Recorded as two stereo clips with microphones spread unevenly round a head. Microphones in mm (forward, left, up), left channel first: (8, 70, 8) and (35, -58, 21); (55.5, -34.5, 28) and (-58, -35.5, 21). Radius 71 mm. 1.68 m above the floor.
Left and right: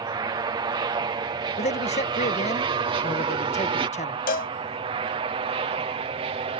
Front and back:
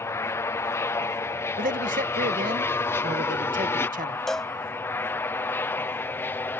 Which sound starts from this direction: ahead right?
An aircraft, at 0.0 s.